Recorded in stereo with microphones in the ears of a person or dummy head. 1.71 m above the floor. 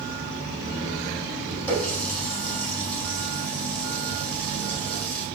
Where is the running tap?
10° left (ahead or behind), 8 m.